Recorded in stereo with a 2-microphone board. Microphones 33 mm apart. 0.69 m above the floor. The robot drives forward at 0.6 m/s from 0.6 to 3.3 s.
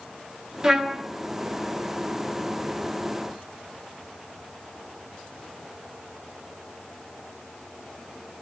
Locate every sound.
0.6 s a trumpet: 25° right (ahead or behind), 1.2 m; by 1.0 s 30° right (ahead or behind), 1.1 m